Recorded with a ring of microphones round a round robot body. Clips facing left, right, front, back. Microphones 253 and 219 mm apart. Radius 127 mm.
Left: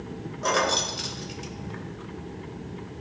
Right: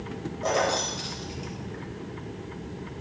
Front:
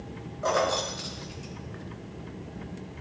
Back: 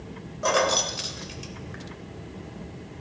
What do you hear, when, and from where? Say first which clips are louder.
0.4 s keys jangling: even, back 2 dB; 145° left, 0.7 m